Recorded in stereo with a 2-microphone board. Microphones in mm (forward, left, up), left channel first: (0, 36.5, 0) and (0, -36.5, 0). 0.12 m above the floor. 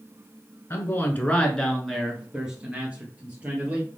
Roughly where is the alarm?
I don't hear an alarm.